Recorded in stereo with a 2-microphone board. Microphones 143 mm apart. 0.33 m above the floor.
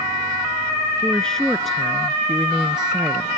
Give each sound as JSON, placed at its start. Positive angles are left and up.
{"t": 1.0, "sound": "a woman speaking", "side_deg": 5}